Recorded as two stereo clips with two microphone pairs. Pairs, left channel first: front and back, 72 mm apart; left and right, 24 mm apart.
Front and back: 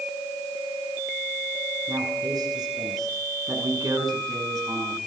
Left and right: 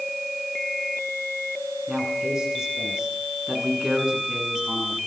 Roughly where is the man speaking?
Behind right.